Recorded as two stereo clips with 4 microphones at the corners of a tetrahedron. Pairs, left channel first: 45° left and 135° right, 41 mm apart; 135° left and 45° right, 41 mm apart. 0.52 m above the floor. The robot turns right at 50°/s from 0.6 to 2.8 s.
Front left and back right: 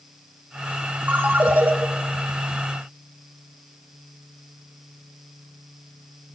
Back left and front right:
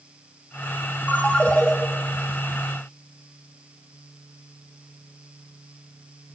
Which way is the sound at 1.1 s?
175° left.